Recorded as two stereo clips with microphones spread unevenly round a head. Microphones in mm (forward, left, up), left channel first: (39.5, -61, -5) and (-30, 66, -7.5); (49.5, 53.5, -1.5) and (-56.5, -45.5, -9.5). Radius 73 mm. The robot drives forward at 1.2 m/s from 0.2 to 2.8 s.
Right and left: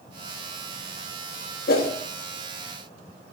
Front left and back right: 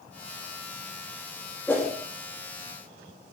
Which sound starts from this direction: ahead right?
A whoosh, at 1.7 s.